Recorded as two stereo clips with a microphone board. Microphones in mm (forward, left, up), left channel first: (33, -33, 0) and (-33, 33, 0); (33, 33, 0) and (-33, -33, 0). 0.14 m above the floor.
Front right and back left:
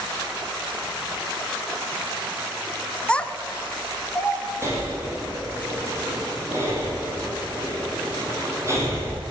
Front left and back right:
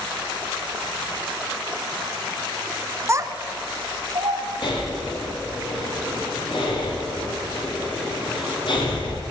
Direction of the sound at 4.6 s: 75° left.